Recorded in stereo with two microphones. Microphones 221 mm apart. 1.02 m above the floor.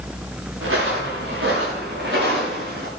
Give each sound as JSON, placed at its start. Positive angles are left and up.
{"t": 0.6, "sound": "footsteps", "side_deg": -70, "distance_m": 8.0}